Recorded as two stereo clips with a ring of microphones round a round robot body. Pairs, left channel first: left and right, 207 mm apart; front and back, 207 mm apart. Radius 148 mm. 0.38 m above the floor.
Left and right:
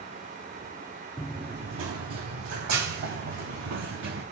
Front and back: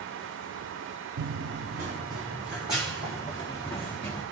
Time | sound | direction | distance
1.2 | running footsteps | 175° left | 0.5 m